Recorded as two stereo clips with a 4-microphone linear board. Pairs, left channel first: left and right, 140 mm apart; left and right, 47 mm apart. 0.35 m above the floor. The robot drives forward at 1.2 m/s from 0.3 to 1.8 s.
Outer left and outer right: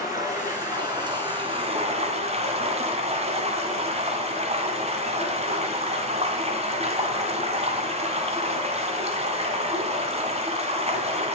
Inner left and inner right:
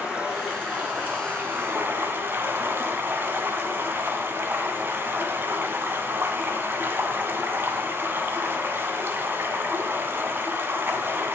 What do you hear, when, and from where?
0.0 s running water: 25° right (ahead or behind), 3 m; by 11.3 s 45° right (ahead or behind), 1.7 m